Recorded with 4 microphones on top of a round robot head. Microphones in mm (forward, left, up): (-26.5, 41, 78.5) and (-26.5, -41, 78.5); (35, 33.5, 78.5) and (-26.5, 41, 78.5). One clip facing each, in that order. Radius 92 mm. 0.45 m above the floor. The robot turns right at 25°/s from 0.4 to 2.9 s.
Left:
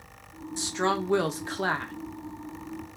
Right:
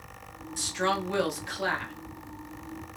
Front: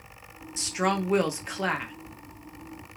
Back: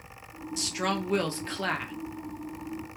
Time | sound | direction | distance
0.6 | a woman speaking | 35° left | 1.1 m